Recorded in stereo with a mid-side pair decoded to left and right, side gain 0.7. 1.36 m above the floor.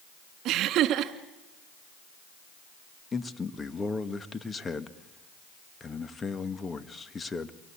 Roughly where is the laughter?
Ahead right.